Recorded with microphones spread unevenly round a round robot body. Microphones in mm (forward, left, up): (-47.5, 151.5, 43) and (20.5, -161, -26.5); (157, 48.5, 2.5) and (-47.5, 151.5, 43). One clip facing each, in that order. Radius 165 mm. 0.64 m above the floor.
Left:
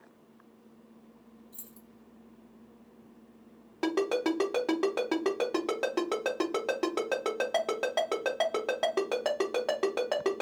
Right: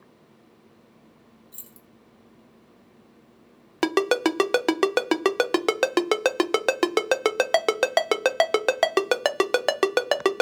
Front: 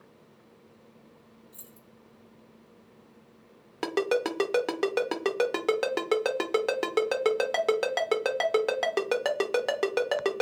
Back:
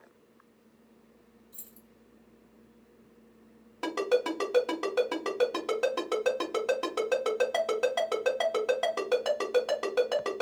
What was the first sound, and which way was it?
Keys jangling, 115° right.